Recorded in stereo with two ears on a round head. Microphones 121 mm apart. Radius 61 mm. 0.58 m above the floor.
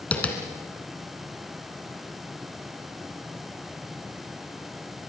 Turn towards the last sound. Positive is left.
turn(degrees=10)  # may be behind; listen again after turning